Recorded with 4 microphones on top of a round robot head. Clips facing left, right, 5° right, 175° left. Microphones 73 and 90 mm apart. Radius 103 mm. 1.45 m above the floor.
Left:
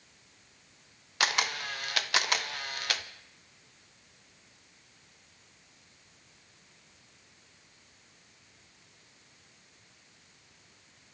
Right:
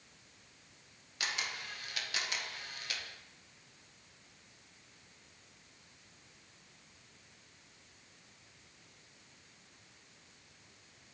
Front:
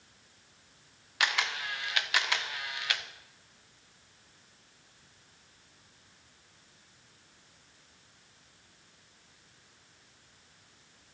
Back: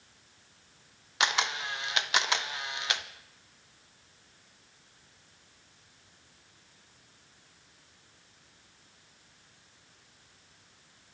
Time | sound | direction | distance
1.2 | a camera shutter | 110° left | 0.9 m